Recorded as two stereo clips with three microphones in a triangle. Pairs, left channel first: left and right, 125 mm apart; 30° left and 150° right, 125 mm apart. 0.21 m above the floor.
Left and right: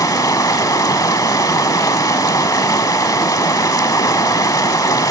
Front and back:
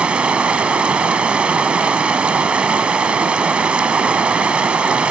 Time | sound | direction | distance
0.0 | running water | 135° left | 0.7 m